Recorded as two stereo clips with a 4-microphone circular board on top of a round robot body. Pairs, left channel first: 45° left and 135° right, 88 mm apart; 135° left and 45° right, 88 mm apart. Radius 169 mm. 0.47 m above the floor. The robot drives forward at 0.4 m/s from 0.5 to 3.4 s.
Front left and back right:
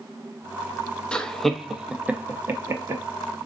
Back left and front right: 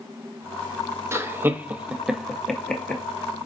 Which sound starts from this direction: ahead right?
Laughter, at 1.1 s.